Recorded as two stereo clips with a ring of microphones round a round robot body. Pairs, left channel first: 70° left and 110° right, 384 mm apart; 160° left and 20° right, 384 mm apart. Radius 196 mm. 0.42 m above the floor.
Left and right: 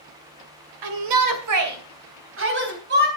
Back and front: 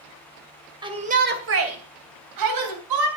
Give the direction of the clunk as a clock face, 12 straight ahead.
No clunk in this recording.